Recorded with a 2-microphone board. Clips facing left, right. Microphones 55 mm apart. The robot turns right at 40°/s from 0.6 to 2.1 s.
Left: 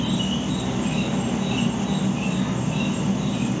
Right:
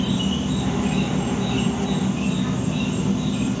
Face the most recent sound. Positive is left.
turn(degrees=25)  # may be behind; listen again after turning